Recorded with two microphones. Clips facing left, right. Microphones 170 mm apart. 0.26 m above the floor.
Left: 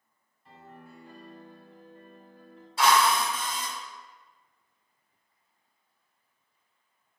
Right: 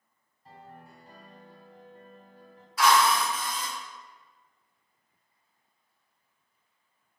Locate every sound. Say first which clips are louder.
0.5 s a piano: even; 40° right (ahead or behind), 1.9 m
2.8 s a drill: even; 30° left (ahead or behind), 1.8 m